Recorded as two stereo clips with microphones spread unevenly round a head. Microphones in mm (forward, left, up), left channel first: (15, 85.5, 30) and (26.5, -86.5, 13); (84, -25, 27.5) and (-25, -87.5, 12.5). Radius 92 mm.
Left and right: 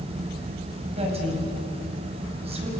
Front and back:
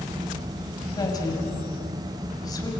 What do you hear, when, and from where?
1.0 s a woman speaking: 30° right, 5.5 m